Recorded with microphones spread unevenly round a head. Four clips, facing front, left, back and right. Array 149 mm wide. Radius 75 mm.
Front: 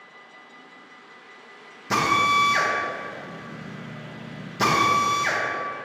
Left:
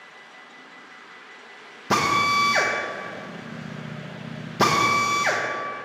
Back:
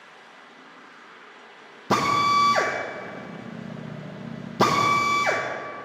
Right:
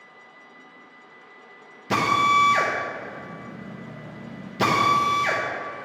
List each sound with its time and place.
1.9 s a drill: 150° left, 1.0 m